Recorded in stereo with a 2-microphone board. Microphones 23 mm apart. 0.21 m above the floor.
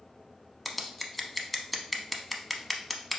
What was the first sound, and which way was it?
Scissors, 5° left (ahead or behind).